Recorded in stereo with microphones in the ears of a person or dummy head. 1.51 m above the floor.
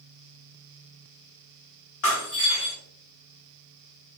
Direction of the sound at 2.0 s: 65° left (ahead or behind).